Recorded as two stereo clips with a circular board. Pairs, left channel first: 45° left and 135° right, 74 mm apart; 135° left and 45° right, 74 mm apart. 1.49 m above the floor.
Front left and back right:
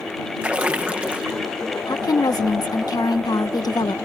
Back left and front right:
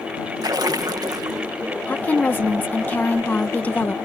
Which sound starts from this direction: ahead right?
A splash, at 0.4 s.